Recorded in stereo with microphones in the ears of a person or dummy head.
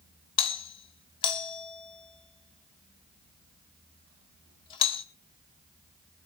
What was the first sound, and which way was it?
A doorbell, 30° left (ahead or behind).